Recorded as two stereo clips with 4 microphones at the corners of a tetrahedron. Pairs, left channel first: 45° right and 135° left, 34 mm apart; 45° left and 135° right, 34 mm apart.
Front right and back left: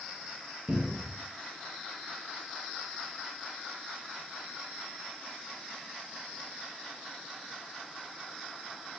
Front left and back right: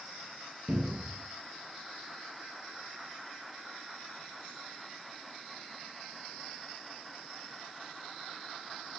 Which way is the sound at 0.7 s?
155° left.